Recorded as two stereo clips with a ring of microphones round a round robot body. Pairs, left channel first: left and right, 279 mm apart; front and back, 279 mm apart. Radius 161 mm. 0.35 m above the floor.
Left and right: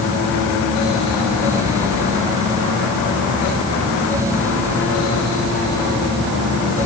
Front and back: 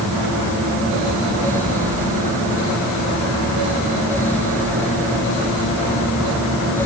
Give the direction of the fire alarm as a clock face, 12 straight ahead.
I don't hear a fire alarm.